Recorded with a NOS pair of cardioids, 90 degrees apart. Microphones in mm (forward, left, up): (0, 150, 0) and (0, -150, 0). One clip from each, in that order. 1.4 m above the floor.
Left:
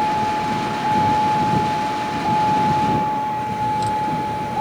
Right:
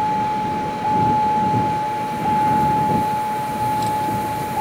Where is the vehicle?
Straight ahead.